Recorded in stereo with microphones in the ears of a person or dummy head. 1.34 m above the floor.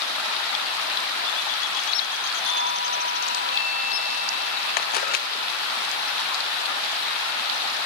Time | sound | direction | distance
2.4 | a doorbell | 75° left (ahead or behind) | 6.5 m
4.8 | a camera shutter | 55° left (ahead or behind) | 0.8 m